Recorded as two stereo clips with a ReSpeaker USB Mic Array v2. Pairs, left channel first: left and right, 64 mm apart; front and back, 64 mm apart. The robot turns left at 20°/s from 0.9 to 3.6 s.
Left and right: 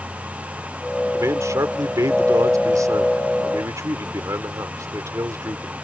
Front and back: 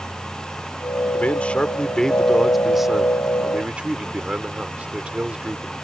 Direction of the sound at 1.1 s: 65° right.